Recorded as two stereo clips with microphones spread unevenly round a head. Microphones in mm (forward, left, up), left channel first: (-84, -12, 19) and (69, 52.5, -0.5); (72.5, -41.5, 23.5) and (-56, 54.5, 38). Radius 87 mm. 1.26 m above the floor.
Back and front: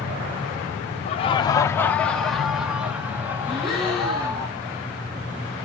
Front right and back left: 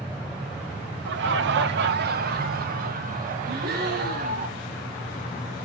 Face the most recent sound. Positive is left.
turn(degrees=115)